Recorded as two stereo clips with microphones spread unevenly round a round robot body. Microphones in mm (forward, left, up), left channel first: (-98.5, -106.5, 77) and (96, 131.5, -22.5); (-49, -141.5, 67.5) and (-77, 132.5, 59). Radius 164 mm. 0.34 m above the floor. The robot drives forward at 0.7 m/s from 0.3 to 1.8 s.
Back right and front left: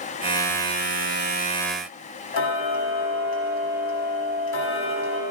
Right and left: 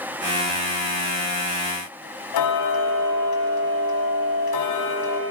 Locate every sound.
2.3 s ticking: 75° right, 1.4 m